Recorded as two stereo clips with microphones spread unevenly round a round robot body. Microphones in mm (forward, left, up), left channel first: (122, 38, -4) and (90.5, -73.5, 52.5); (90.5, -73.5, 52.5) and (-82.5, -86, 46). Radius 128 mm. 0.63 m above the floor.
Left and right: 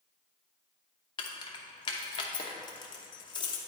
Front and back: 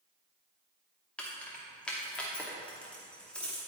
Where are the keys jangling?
90° left, 0.8 m.